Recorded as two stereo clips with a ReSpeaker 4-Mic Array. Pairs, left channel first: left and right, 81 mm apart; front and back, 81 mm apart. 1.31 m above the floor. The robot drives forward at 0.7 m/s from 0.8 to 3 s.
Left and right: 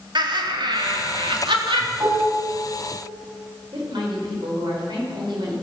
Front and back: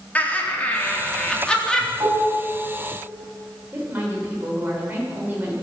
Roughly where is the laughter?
Right.